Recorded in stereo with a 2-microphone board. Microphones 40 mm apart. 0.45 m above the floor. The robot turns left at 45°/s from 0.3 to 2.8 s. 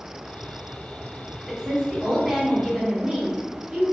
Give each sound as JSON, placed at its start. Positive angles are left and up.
{"t": 1.5, "sound": "a woman speaking", "side_deg": -10, "distance_m": 1.3}